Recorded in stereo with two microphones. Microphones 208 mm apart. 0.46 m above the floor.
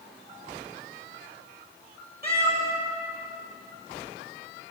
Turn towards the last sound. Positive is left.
turn(degrees=-50)  # may be behind; listen again after turning